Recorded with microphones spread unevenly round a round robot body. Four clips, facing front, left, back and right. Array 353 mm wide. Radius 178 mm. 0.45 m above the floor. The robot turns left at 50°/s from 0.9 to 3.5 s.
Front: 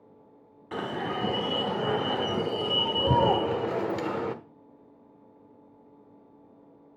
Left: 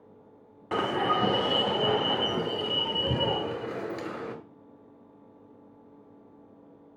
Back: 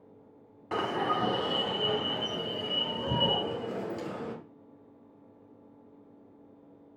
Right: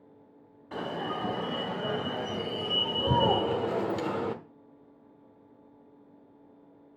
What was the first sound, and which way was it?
An alarm, 100° left.